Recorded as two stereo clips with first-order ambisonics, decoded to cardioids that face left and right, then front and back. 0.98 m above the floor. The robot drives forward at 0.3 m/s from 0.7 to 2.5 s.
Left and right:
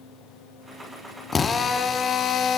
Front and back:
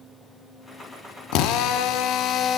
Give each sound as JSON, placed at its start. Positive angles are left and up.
{"t": 1.3, "sound": "a drill", "azimuth_deg": 20, "distance_m": 0.7}